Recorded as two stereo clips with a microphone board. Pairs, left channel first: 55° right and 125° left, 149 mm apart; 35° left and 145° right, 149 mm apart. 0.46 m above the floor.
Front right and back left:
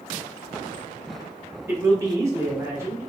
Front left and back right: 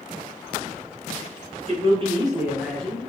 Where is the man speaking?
170° right, 1.2 m; by 3.1 s 70° left, 0.9 m.